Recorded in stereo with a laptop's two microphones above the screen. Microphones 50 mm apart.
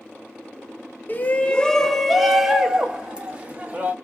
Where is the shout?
40° left (ahead or behind), 0.8 m; by 3.9 s 25° right (ahead or behind), 1.9 m.